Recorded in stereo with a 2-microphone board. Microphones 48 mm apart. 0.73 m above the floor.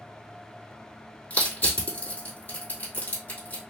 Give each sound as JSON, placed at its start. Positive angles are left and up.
{"t": 1.3, "sound": "crushing", "side_deg": 45, "distance_m": 1.7}